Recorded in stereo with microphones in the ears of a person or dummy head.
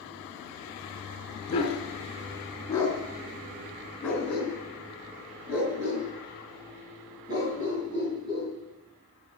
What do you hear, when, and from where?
1.5 s a dog barking: 30° left (ahead or behind), 4 m; by 8.5 s 25° right (ahead or behind), 6 m